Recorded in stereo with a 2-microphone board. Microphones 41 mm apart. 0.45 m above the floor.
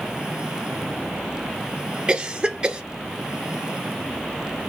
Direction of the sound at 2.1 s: 25° right (ahead or behind).